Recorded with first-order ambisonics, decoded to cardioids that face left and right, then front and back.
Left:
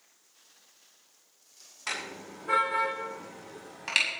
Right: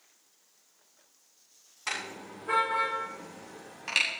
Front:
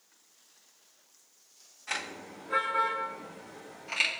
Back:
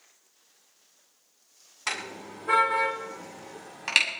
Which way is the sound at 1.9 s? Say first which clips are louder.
Even, back 3 dB; straight behind.